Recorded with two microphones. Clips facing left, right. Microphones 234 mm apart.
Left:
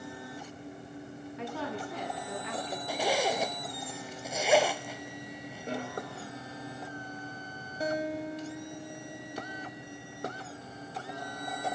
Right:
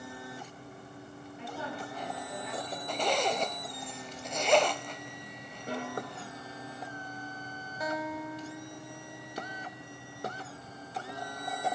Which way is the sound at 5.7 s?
25° left (ahead or behind).